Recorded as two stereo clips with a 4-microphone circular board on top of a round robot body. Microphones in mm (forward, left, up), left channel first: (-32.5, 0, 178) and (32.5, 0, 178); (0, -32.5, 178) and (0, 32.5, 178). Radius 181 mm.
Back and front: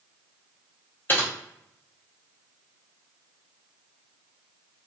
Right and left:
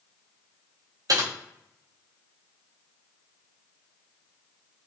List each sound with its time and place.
1.1 s typing on a keyboard: 120° left, 0.6 m